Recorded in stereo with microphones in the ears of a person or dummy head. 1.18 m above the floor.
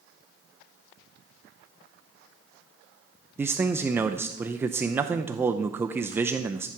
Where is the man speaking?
20° right (ahead or behind), 0.6 m.